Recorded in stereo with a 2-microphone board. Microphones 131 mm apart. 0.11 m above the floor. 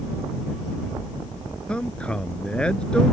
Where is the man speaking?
10° left (ahead or behind).